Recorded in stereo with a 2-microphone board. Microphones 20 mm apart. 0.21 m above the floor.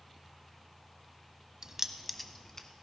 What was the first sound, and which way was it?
Keys jangling, 35° right (ahead or behind).